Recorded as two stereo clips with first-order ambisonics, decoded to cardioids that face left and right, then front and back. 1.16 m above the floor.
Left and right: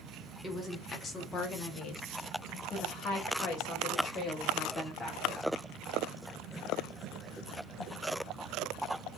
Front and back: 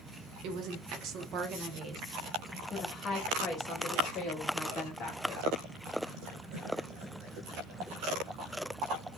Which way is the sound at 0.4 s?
170° left.